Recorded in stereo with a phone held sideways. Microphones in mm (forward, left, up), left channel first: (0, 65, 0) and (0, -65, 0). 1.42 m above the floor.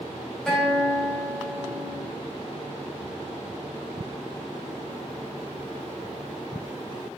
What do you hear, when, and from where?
0.5 s a guitar: 5° left (ahead or behind), 5.5 m